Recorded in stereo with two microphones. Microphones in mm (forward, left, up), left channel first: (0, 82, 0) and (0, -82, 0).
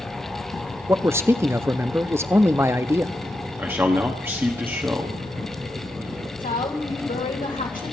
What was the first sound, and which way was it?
A man speaking, 15° right (ahead or behind).